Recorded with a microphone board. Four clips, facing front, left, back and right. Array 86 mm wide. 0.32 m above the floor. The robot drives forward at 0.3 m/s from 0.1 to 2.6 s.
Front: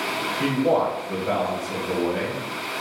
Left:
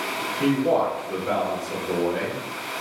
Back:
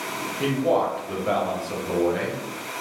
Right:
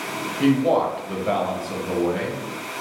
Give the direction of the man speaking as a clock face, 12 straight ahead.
3 o'clock.